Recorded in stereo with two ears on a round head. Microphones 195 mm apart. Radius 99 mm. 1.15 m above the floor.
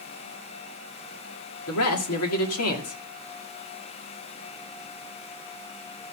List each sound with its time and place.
1.7 s a man speaking: 85° left, 2.5 m